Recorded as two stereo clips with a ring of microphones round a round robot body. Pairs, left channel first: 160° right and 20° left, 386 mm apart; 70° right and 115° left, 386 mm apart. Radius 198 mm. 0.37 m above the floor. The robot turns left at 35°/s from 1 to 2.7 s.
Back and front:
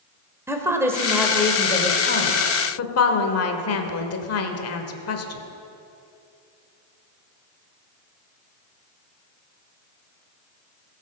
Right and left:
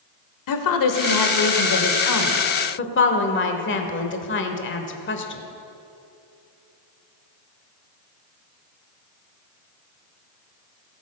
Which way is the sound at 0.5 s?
60° right.